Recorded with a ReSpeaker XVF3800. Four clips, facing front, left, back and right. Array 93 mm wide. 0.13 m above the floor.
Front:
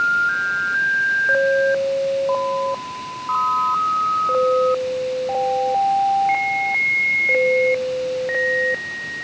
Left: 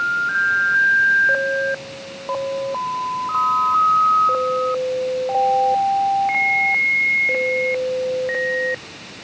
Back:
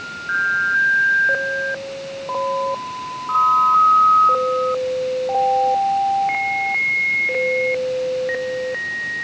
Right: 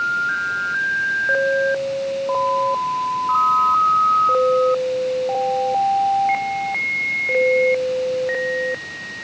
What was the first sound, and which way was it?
Only background noise.